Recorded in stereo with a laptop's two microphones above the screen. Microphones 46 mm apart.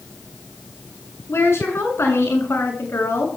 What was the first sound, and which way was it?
A woman speaking, 75° left (ahead or behind).